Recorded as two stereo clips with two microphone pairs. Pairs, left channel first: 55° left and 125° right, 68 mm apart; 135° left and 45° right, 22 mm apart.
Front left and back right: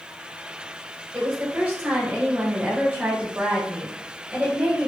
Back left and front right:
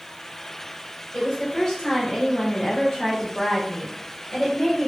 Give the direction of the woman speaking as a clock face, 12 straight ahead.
6 o'clock.